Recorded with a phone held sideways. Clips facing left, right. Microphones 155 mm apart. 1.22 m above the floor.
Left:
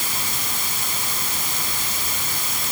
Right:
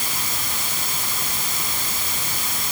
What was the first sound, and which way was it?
Only background noise.